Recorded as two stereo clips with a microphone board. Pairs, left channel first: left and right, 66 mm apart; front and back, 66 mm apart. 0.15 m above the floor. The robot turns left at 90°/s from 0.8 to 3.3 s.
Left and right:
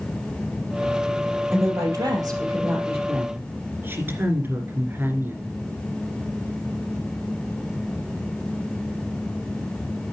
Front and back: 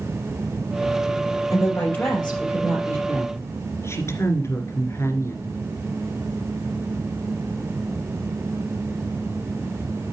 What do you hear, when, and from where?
1.5 s a woman speaking: 15° right, 3.5 m; by 3.0 s 145° right, 3.5 m
3.1 s a woman speaking: 20° right, 2 m; by 5.6 s 40° right, 2 m